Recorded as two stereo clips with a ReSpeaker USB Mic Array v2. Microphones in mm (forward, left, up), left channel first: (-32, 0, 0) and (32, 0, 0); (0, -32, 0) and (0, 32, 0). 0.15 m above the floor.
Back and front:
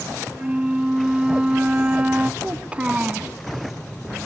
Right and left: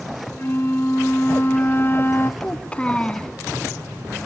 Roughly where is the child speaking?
Ahead right.